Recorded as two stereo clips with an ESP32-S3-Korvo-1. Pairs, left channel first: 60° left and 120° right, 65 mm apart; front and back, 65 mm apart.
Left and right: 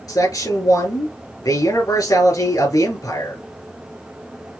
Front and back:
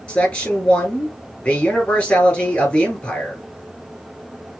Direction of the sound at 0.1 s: 65° left.